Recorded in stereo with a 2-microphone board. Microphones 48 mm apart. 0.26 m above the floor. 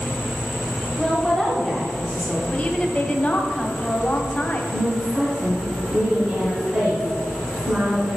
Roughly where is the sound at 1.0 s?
Centre.